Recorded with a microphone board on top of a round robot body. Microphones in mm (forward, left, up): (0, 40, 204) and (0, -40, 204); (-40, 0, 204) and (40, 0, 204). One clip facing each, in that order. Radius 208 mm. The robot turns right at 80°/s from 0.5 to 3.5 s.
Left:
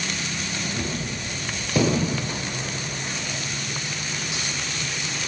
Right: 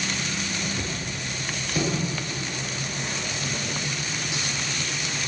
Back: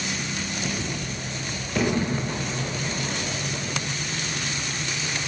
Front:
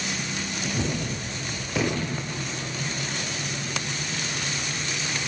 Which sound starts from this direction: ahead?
A gunshot, at 0.7 s.